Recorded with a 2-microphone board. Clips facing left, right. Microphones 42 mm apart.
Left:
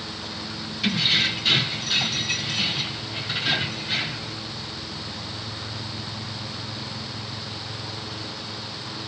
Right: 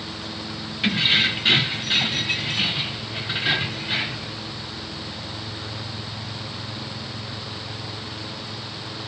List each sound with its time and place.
0.8 s keys jangling: 30° right (ahead or behind), 0.8 m; by 4.3 s 15° right (ahead or behind), 1.6 m